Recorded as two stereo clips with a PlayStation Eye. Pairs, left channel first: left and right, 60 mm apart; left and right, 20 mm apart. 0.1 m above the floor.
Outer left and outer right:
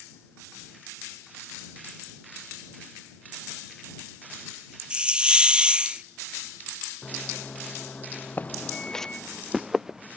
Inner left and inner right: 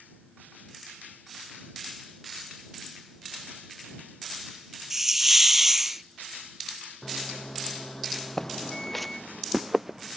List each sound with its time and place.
4.9 s a hiss: 15° right (ahead or behind)
7.0 s a microwave: 20° left (ahead or behind)
8.4 s footsteps: 30° left (ahead or behind); by 10.2 s 10° right (ahead or behind)